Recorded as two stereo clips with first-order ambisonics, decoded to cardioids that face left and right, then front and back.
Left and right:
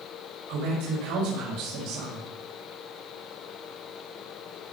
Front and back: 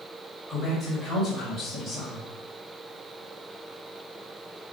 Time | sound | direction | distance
0.5 | a man speaking | 105° right | 5 m